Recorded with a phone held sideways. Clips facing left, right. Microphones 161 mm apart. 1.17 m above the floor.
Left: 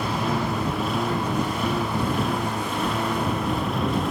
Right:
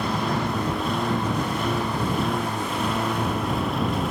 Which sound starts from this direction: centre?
A lawn mower, at 0.0 s.